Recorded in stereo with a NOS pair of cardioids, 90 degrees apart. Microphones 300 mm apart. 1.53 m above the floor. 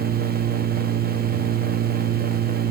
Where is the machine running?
30° right, 1.1 m.